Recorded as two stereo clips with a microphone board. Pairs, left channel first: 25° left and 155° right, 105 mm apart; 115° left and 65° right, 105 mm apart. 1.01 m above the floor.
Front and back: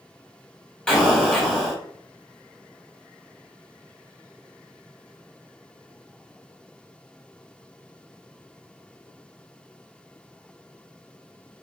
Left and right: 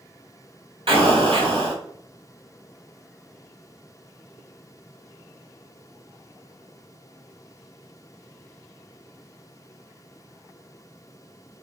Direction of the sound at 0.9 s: 55° right.